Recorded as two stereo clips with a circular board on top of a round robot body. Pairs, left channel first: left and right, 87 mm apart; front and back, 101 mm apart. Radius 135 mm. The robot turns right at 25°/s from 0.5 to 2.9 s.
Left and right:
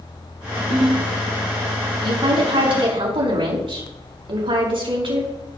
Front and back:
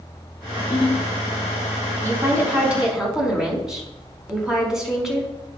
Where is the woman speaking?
115° right, 5 m; by 5.3 s 95° right, 5 m.